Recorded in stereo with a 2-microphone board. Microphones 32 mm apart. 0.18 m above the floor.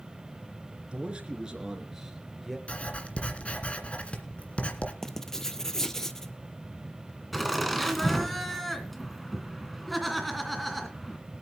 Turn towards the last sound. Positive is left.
turn(degrees=0)  # may be behind; listen again after turning